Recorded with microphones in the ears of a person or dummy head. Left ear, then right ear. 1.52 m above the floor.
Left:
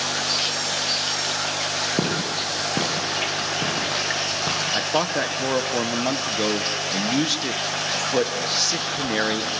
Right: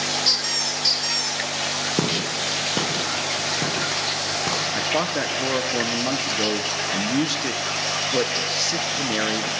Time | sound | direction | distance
0.2 | a squeak | 60° right (ahead or behind) | 2.0 m
2.0 | footsteps | 15° right (ahead or behind) | 6 m
4.7 | a man speaking | 20° left (ahead or behind) | 1.3 m